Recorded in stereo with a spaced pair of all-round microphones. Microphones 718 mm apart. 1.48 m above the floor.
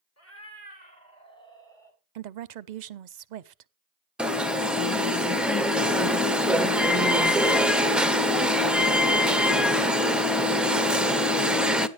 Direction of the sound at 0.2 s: 20° left (ahead or behind).